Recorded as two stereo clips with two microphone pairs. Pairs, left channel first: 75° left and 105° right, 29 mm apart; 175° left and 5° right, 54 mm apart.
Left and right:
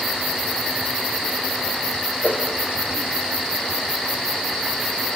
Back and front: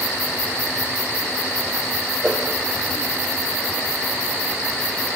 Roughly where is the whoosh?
Left.